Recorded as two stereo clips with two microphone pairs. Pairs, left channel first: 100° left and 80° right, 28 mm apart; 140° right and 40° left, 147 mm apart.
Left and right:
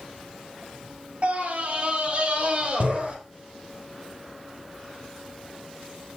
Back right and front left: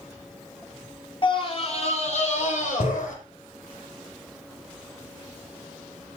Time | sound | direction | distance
1.2 | a scream | 100° right | 3 m